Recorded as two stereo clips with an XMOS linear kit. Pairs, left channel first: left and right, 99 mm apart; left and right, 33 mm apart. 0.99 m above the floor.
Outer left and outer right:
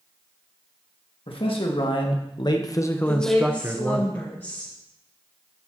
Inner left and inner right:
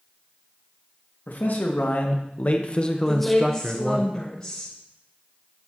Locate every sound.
1.3 s a man speaking: 65° left (ahead or behind), 1.7 m; by 4.0 s 40° right (ahead or behind), 0.9 m
3.0 s a woman speaking: 25° left (ahead or behind), 3.5 m